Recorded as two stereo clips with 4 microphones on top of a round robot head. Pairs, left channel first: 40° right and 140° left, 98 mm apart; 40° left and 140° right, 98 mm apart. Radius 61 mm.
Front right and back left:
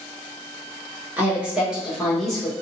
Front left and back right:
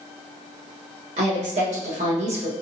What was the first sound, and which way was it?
A woman speaking, 145° right.